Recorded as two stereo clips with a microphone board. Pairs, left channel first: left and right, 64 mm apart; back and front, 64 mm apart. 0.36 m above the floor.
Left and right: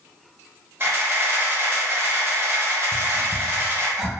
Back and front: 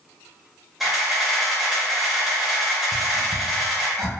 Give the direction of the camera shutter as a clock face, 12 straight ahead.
3 o'clock.